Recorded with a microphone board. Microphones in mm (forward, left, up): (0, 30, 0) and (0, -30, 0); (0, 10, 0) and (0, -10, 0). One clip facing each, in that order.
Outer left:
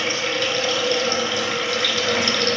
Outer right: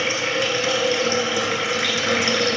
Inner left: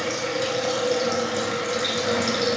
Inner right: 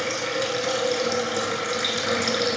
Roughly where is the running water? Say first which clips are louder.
Outer right 1 dB, even; centre.